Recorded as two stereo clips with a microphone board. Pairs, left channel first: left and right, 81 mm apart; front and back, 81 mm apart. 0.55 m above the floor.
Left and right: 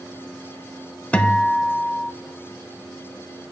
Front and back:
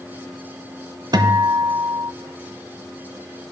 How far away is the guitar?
About 0.7 m.